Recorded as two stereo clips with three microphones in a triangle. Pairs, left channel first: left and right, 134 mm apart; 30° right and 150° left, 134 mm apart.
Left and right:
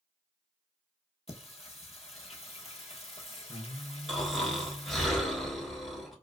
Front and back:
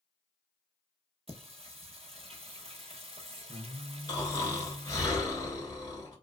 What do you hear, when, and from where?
1.3 s singing: 120° left, 0.5 m
4.1 s snoring: straight ahead, 1.0 m